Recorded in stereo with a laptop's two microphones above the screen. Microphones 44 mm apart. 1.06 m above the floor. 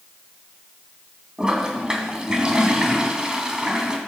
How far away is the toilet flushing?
About 2.5 m.